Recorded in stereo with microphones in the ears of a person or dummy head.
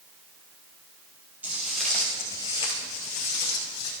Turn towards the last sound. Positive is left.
turn(degrees=60)  # may be behind; listen again after turning